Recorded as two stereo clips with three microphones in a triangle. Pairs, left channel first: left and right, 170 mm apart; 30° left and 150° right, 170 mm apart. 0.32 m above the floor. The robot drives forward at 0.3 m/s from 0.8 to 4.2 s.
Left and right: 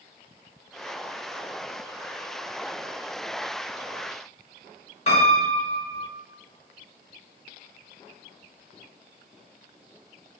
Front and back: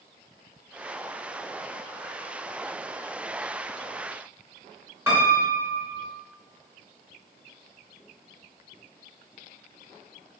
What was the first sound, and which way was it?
A piano, 135° left.